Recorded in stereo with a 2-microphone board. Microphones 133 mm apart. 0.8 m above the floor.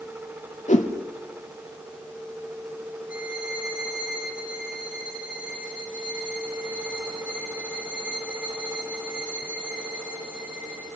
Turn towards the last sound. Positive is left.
turn(degrees=-10)  # may be behind; listen again after turning